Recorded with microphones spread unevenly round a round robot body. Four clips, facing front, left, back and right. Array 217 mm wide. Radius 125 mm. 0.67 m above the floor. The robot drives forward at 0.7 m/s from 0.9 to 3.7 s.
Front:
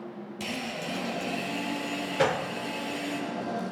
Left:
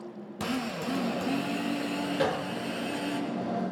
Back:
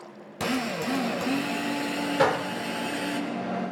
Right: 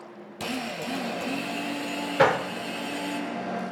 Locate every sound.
0.4 s a drill: 155° left, 4 m; by 3.2 s 165° left, 5.5 m
2.2 s a gunshot: 100° right, 1.0 m; by 2.5 s 110° right, 1.1 m